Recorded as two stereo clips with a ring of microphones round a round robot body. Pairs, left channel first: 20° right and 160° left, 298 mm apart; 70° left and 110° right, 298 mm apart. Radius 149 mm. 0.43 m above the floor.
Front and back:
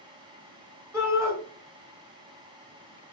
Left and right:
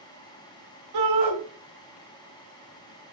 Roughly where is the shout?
Behind right.